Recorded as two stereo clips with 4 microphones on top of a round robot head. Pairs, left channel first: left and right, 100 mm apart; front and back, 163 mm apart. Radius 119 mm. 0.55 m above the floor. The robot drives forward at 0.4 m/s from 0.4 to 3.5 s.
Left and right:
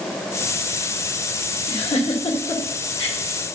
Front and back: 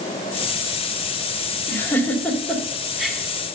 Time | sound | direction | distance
1.7 | a giggle | 75° left | 2 m